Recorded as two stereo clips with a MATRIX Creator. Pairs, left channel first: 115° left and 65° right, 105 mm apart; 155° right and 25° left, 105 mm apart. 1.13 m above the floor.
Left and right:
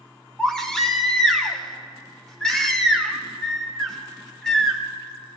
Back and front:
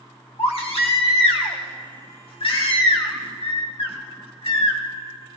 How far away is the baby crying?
About 1.2 m.